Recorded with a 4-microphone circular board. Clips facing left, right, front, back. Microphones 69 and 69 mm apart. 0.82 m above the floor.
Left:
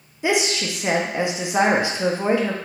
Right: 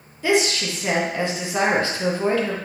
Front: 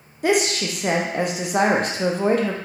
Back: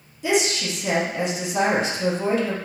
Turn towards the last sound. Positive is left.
turn(degrees=25)